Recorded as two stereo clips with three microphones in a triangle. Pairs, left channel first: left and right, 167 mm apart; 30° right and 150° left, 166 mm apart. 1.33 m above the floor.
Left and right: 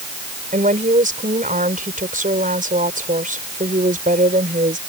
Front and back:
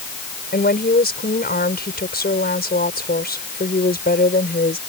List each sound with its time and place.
0.5 s a woman speaking: 50° right